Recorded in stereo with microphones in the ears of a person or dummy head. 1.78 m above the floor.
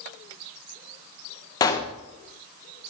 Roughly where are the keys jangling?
I don't hear keys jangling.